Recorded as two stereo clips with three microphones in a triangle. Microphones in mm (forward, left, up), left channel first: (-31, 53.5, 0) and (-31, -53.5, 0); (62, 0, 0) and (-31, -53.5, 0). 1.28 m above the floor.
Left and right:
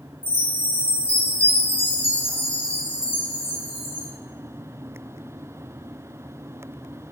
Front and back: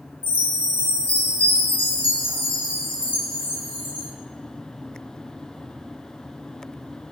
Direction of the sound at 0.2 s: 60° left.